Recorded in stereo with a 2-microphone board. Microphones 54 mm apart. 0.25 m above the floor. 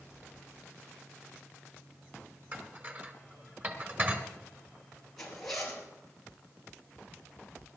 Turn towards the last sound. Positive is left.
turn(degrees=5)  # may be behind; listen again after turning